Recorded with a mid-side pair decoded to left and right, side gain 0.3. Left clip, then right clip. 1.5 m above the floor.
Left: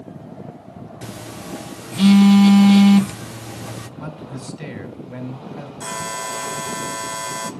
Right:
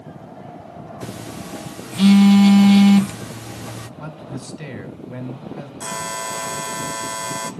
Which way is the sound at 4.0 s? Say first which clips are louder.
Even; straight ahead.